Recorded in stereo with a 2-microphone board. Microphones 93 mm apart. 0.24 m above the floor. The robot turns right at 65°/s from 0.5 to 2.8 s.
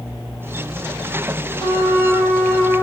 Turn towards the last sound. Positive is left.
turn(degrees=-150)